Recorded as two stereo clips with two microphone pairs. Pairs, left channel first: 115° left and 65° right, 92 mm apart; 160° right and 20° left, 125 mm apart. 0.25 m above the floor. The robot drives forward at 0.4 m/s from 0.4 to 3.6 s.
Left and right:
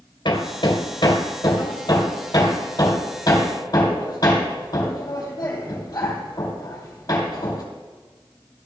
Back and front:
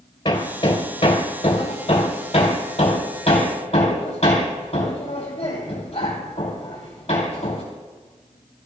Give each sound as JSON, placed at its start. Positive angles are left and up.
{"t": 0.2, "sound": "hammering", "azimuth_deg": 150, "distance_m": 1.6}